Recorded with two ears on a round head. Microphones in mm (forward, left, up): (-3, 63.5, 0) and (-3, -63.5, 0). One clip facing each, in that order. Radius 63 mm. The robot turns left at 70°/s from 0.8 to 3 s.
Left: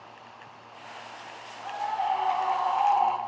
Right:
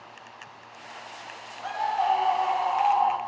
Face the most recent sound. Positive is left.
turn(degrees=175)